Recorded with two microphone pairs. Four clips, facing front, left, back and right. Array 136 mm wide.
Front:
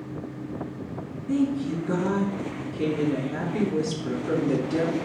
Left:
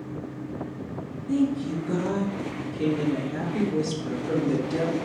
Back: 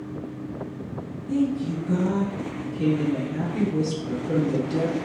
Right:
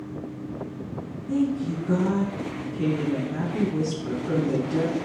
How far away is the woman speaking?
About 3.5 m.